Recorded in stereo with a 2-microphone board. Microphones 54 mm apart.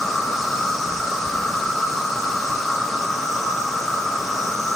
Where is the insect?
Centre (ahead or behind), 0.9 m.